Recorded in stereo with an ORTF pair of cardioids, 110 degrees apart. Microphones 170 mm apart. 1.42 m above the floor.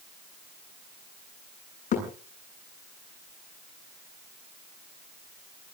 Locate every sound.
1.9 s a thud: 45° left, 8.5 m